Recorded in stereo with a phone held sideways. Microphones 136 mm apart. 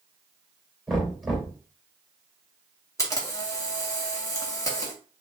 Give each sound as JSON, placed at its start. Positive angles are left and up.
{"t": 0.9, "sound": "knocking", "side_deg": 0, "distance_m": 2.5}
{"t": 3.0, "sound": "a camera shutter", "side_deg": 25, "distance_m": 1.2}